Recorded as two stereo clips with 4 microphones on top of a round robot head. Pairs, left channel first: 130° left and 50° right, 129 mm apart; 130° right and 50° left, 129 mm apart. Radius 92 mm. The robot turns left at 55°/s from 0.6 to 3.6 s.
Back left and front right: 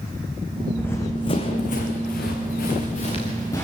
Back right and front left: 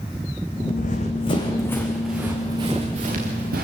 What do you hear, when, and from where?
0.8 s running footsteps: 150° right, 1.9 m; by 3.6 s 55° left, 4 m